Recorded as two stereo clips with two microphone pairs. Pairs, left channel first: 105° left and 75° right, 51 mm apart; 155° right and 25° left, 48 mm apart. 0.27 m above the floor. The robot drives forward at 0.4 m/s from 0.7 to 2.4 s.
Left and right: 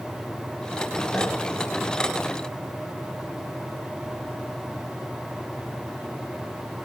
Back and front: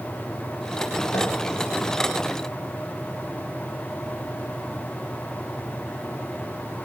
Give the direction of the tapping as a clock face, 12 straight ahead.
5 o'clock.